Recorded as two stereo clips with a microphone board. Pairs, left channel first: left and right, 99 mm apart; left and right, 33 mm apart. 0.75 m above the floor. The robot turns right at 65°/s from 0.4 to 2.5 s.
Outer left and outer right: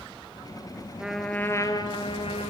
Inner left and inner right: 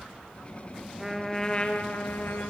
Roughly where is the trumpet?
Ahead.